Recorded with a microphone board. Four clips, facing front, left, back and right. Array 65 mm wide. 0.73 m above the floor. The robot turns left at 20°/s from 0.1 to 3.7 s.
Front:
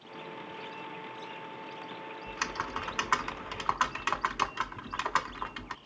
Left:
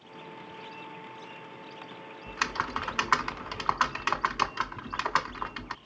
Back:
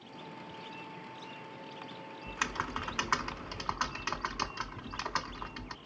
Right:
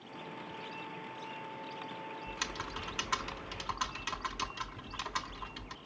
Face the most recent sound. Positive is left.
turn(degrees=75)